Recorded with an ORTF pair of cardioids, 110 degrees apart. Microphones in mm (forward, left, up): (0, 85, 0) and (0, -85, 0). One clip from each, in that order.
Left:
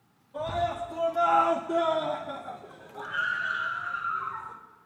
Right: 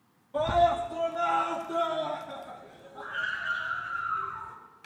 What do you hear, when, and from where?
0.3 s a scream: 40° right, 0.9 m; by 4.5 s 80° left, 3 m